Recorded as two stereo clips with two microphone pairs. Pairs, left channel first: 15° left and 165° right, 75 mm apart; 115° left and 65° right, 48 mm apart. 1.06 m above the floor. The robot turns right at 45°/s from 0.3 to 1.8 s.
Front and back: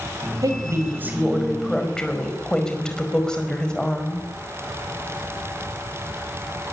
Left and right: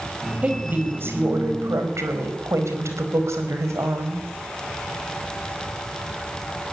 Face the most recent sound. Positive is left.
turn(degrees=-65)